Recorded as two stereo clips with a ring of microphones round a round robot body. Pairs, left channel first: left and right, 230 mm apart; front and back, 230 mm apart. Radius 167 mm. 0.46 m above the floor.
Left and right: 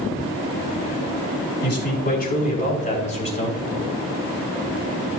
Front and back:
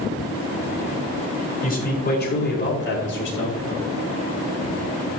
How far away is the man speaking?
About 5 m.